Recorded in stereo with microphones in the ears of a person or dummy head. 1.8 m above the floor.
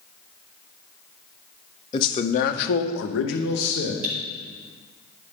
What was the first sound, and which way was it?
A man speaking, 30° left (ahead or behind).